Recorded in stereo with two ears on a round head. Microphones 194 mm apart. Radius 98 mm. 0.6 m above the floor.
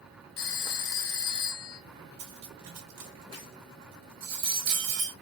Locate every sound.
0.4 s a phone ringing: 60° left (ahead or behind), 0.9 m
2.2 s cutlery clinking: 70° right (ahead or behind), 1.8 m